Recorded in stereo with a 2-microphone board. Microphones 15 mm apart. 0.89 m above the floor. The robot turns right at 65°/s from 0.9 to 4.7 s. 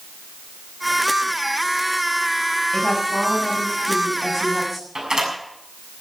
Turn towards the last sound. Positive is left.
turn(degrees=-45)  # may be behind; listen again after turning